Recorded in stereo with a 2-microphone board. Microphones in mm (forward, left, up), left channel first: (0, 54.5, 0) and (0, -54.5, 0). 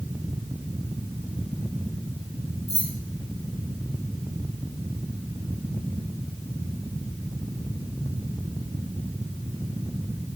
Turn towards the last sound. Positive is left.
turn(degrees=75)  # may be behind; listen again after turning